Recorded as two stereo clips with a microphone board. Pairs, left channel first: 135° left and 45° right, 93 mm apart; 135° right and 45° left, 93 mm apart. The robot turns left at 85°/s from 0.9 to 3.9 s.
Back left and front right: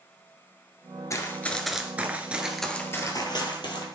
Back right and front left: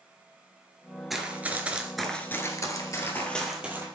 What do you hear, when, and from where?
1.1 s running footsteps: 135° left, 1.5 m; by 3.9 s 105° left, 2.5 m